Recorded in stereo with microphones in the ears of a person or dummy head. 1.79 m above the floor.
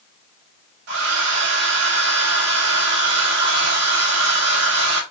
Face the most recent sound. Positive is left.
turn(degrees=-80)